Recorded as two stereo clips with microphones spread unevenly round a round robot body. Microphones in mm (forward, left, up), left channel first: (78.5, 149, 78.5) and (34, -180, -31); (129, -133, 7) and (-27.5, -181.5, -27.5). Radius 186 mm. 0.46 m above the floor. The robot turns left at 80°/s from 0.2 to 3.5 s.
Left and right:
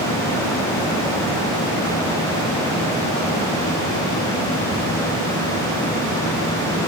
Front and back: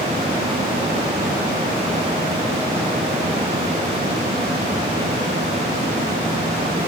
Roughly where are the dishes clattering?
No dishes clattering in this recording.